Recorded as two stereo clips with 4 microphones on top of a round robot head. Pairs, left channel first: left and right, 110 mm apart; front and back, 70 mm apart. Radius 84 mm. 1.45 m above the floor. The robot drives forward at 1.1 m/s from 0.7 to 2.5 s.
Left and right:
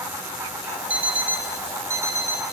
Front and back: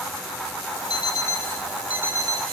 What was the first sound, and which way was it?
An alarm clock, 15° right.